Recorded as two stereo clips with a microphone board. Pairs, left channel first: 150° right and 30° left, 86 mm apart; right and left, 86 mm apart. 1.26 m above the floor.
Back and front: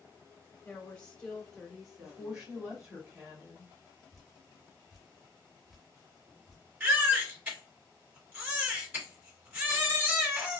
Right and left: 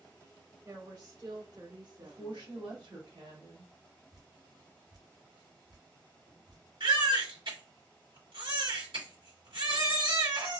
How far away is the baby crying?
About 2.5 m.